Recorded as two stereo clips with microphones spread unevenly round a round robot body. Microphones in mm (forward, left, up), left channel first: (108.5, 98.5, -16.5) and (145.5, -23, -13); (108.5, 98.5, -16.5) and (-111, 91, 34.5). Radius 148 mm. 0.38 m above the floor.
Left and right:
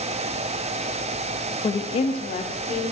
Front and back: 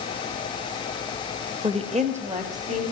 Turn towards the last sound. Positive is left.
turn(degrees=125)